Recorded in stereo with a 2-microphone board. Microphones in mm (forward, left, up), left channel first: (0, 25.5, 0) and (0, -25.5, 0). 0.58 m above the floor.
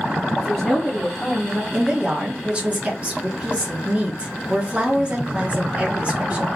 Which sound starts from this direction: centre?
A woman speaking, at 0.4 s.